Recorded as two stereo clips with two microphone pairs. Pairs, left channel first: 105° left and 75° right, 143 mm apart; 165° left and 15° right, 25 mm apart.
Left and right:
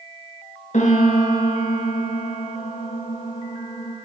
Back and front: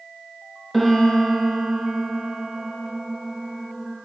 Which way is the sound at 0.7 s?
75° left.